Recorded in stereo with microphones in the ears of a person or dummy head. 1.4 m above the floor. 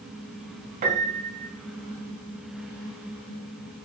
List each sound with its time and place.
0.8 s a piano: 40° right (ahead or behind), 0.6 m